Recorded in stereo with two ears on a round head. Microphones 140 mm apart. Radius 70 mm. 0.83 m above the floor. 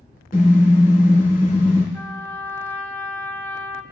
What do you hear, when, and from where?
0.3 s a car horn: 55° left (ahead or behind), 5.5 m
1.9 s a trumpet: 10° left (ahead or behind), 0.9 m